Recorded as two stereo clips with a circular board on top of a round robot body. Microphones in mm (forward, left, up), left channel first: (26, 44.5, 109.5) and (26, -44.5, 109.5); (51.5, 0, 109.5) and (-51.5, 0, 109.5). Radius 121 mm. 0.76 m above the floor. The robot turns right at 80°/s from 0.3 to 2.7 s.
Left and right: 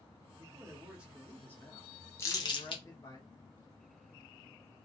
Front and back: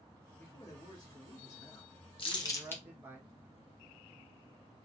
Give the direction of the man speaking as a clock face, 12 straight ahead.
2 o'clock.